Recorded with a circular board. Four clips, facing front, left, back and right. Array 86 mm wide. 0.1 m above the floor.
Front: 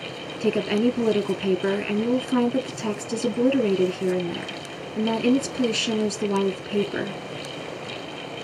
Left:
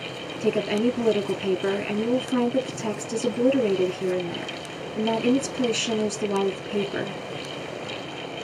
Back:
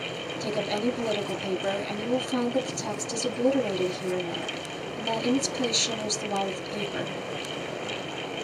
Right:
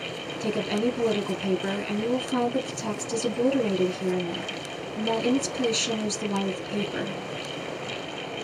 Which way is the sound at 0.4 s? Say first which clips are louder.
Left 4 dB, front 7 dB; 25° left.